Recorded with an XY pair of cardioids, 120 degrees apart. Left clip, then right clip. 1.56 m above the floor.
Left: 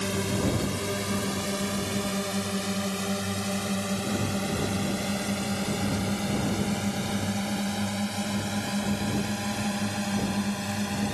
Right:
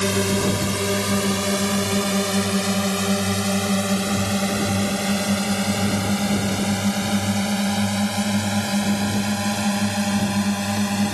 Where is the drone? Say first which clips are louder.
Right 7 dB; 45° right; by 11.1 s 40° right.